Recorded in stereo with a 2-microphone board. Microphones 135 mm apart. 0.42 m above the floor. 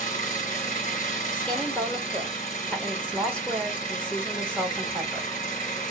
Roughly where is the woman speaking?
Centre.